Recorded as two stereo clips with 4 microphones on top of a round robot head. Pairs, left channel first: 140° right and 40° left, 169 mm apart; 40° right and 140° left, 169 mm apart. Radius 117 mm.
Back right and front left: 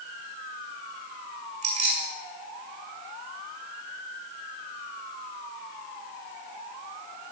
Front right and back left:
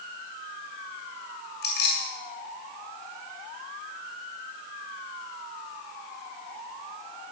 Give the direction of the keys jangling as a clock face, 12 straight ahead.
12 o'clock.